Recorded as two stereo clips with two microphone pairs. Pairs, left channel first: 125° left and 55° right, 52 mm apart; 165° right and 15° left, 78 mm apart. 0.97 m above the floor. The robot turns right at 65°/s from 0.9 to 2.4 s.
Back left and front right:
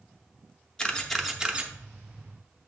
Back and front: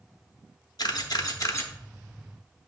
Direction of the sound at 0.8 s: 165° right.